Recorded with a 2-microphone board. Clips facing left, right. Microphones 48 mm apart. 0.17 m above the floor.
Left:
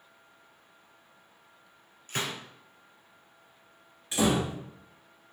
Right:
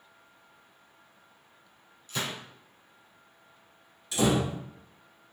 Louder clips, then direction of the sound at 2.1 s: Left 1 dB; 55° left (ahead or behind).